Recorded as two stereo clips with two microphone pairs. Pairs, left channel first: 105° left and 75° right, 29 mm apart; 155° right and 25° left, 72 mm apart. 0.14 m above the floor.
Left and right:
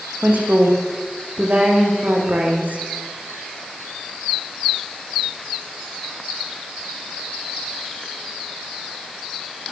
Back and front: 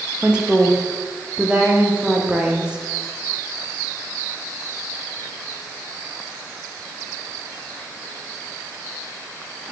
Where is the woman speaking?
50° right, 8 m.